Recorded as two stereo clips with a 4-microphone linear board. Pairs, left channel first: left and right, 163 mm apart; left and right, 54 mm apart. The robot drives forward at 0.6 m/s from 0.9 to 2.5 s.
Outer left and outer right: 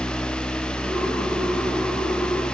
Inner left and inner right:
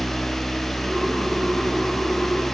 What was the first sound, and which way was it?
Only background noise.